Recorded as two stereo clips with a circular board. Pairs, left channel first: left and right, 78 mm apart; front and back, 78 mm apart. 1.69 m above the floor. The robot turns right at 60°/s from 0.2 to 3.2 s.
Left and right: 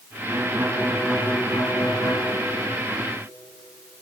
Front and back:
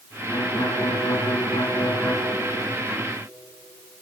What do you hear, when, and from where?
0.3 s a violin: 35° right, 5 m; by 2.2 s 80° left, 5 m